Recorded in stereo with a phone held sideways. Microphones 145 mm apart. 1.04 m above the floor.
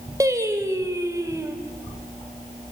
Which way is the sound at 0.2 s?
20° right (ahead or behind).